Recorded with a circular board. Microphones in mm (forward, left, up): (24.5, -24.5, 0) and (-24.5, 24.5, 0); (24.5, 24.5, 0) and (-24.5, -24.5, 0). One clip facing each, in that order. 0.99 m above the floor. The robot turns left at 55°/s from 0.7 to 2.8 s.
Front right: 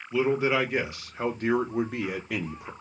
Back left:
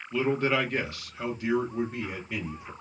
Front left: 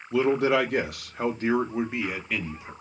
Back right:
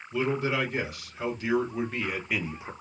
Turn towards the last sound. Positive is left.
turn(degrees=-80)